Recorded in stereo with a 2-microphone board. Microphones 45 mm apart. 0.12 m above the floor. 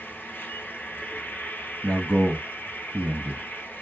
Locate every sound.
0.0 s an insect: 50° left (ahead or behind), 0.9 m
1.8 s a man speaking: 50° right (ahead or behind), 2 m